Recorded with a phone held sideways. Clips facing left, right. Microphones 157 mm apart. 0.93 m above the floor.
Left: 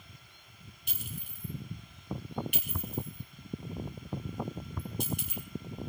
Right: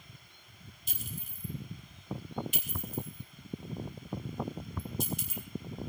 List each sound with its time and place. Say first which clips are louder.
0.9 s a clink: even; 65° left (ahead or behind), 2.5 m